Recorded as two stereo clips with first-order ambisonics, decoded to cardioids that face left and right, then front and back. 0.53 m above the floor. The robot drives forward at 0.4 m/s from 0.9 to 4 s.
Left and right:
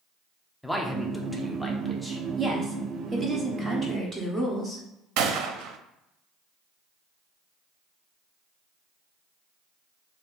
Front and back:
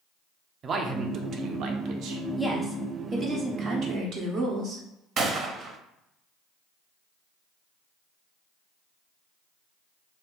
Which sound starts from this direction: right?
A woman speaking, at 2.4 s.